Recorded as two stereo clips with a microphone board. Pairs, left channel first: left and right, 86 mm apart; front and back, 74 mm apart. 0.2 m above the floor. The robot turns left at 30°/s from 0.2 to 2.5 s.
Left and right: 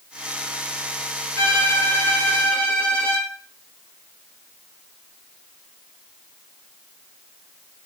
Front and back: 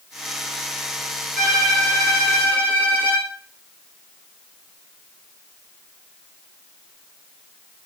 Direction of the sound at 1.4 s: 70° left.